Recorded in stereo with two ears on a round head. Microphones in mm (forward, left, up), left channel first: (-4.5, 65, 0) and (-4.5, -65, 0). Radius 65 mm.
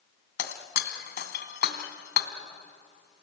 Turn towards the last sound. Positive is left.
turn(degrees=80)